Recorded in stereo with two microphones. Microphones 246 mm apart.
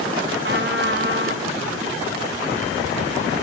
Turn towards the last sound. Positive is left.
turn(degrees=-50)  # may be behind; listen again after turning